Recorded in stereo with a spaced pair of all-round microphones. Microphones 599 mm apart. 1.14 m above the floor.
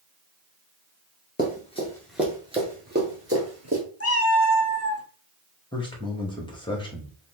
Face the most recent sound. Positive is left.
turn(degrees=10)  # may be behind; listen again after turning